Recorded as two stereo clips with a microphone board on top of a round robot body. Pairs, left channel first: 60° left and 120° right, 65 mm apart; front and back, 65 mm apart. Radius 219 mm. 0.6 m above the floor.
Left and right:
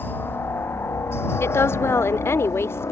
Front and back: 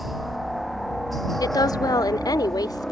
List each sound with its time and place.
0.0 s a helicopter: 90° left; by 2.9 s 80° left
1.4 s a woman speaking: 10° left